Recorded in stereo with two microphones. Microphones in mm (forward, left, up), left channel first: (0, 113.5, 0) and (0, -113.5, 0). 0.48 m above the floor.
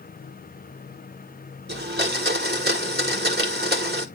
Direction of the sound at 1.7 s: 45° right (ahead or behind).